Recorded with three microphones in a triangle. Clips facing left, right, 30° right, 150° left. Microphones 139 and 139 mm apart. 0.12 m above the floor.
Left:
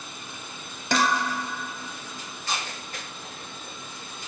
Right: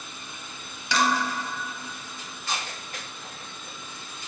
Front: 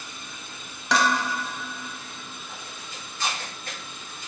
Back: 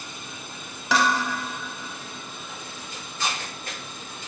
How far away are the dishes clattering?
About 1.4 m.